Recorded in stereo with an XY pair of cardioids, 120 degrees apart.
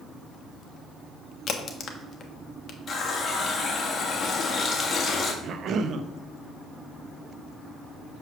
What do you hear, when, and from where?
1.5 s a crack: 40° left, 1.2 m
2.9 s a running tap: 35° left, 1.6 m
5.4 s a cough: 55° right, 0.8 m